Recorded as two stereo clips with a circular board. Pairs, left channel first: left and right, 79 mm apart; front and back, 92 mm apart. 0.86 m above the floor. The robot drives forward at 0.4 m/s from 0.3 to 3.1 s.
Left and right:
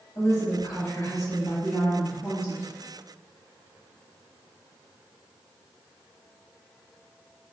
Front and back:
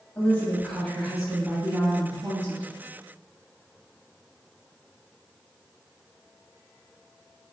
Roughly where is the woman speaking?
Ahead left.